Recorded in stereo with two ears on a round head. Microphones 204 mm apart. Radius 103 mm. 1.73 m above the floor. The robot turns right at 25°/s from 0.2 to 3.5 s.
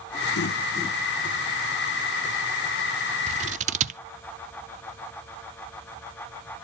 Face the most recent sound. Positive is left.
turn(degrees=-30)  # may be behind; listen again after turning